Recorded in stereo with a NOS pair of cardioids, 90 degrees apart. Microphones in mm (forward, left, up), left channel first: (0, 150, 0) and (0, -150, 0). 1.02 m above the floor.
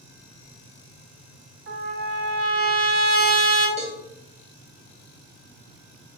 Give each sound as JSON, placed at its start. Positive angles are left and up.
{"t": 1.7, "sound": "a trumpet", "azimuth_deg": -40, "distance_m": 1.4}
{"t": 3.8, "sound": "a cowbell", "azimuth_deg": -20, "distance_m": 1.1}